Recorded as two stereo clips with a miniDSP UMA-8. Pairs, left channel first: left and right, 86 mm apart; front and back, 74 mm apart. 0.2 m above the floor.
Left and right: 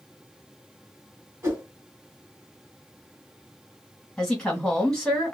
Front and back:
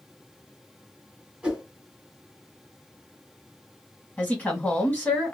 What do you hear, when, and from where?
1.4 s a whoosh: 115° right, 1.3 m
4.2 s a woman speaking: 25° left, 1.5 m